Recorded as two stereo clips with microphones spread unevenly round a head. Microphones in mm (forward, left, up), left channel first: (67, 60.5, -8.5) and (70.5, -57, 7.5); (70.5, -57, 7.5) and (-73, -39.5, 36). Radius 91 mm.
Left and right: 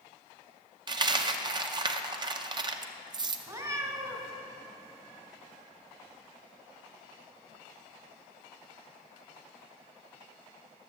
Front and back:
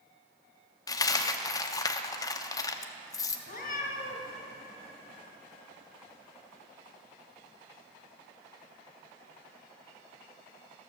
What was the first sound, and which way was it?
A dropped coin, 75° right.